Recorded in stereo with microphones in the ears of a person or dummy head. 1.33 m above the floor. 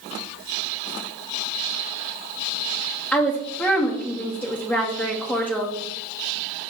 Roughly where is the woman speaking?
Centre.